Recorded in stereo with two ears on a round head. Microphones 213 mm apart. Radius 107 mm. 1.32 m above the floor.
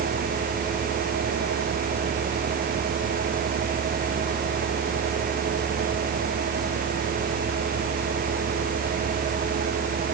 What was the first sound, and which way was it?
Only background noise.